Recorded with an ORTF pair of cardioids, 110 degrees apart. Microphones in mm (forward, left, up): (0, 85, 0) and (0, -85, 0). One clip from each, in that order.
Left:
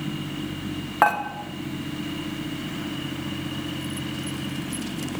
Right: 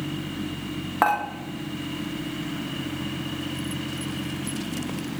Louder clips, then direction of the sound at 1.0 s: Left 2 dB; 5° left.